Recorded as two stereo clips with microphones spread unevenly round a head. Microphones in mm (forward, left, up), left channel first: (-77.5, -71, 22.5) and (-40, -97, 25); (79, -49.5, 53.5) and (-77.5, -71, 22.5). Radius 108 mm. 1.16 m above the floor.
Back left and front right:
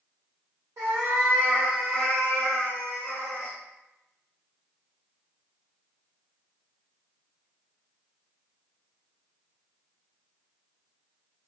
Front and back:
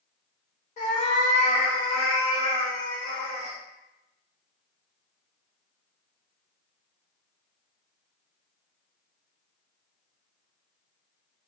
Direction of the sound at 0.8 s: 15° right.